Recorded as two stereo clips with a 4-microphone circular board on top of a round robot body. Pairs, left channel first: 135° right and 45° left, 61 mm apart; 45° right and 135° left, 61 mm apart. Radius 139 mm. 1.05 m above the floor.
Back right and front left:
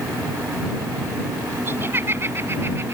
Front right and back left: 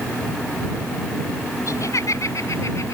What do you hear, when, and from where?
1.7 s laughter: 5° right